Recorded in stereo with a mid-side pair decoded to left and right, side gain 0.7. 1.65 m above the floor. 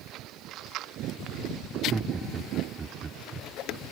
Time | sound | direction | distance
1.7 | laughter | 15° right | ?